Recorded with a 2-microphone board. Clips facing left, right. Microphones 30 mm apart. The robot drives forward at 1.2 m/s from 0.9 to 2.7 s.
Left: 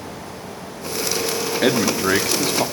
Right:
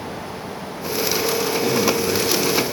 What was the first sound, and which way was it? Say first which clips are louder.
A man speaking: left 4 dB; 70° left (ahead or behind).